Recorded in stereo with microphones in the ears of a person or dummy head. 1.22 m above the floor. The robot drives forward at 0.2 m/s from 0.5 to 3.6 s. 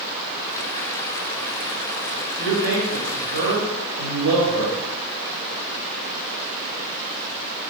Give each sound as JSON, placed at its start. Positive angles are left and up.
{"t": 2.4, "sound": "a man speaking", "side_deg": -75, "distance_m": 1.2}